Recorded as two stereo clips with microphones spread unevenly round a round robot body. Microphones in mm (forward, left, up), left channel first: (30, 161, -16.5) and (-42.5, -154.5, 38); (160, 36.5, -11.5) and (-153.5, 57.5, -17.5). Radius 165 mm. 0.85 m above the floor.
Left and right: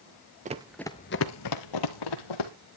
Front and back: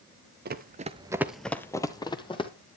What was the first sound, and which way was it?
Running footsteps, 140° right.